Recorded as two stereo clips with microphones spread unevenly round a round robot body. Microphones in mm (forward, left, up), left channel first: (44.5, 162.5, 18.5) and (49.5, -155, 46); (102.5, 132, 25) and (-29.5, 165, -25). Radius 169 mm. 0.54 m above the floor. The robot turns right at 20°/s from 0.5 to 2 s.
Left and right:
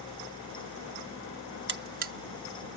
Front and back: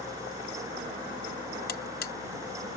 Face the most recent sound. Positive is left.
turn(degrees=-25)